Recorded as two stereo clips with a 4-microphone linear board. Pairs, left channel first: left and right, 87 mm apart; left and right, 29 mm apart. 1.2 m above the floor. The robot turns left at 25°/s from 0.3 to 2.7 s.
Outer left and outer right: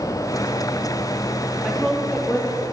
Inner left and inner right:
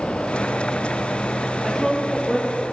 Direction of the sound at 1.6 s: Centre (ahead or behind).